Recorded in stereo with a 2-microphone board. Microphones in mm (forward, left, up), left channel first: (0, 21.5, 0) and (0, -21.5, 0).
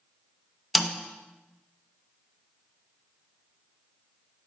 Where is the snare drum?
5° right (ahead or behind), 0.6 m.